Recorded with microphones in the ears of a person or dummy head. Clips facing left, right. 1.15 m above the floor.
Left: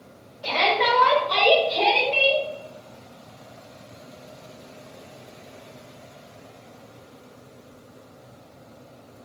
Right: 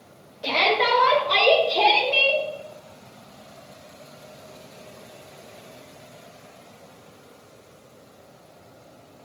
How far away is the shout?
About 1.9 m.